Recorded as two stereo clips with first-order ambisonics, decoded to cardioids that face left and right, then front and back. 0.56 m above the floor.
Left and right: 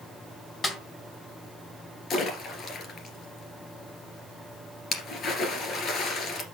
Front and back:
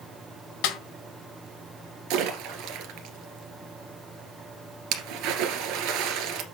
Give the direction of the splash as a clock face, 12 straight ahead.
7 o'clock.